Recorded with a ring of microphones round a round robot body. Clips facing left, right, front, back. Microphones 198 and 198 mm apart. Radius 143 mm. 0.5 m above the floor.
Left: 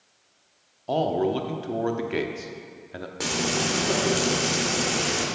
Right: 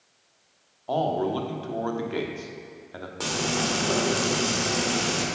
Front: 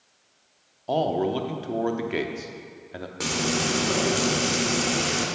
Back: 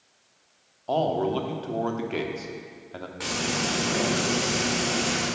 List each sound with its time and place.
0.9 s a man speaking: 60° left, 0.9 m
3.2 s frying: 20° left, 1.9 m